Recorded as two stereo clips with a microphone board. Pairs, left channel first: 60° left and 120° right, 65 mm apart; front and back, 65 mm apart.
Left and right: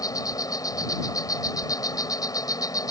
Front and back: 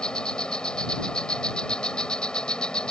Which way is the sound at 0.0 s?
75° left.